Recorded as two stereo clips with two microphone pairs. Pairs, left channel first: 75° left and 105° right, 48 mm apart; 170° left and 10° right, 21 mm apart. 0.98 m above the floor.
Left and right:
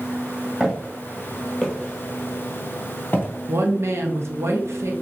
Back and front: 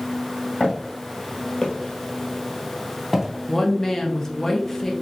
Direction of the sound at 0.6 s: 175° left.